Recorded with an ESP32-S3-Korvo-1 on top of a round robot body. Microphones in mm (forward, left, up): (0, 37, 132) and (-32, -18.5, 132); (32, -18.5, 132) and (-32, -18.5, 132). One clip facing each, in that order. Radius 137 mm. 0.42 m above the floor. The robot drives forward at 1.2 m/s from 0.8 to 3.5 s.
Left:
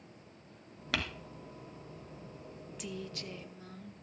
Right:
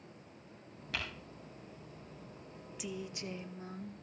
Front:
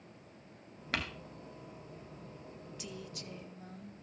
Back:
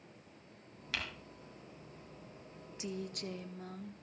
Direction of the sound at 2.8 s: 160° left.